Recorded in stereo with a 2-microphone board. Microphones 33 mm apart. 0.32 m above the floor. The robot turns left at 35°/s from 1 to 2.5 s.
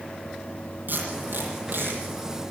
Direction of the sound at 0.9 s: 60° right (ahead or behind).